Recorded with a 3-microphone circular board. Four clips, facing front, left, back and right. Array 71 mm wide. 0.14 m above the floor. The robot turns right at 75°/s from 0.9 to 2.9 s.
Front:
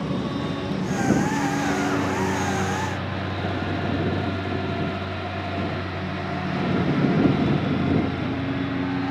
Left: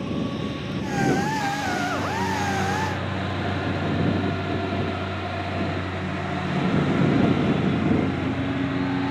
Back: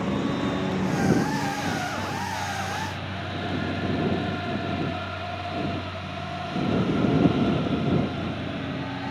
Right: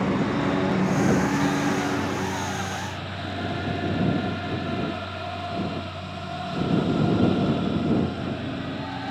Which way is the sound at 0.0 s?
105° right.